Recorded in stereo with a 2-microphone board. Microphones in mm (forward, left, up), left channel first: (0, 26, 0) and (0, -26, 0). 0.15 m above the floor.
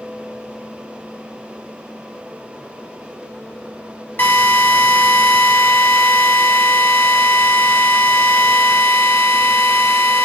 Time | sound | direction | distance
4.2 | a drill | 40° left (ahead or behind) | 2.5 m